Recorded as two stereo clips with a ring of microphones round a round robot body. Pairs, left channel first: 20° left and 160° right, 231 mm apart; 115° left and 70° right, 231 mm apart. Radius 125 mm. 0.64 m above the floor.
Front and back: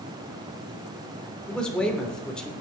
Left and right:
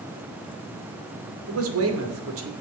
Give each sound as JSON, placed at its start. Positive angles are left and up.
{"t": 1.5, "sound": "a man speaking", "azimuth_deg": -65, "distance_m": 3.0}